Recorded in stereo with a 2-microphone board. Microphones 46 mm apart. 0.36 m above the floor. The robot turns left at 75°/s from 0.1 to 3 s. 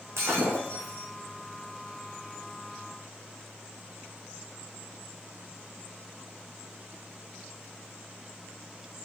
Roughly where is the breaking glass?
Right.